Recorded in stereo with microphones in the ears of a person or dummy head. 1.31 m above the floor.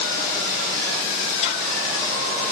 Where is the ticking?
35° left (ahead or behind), 1.5 m.